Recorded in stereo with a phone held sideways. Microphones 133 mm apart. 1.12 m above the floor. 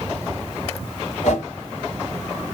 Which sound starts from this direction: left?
A whoosh, at 1.2 s.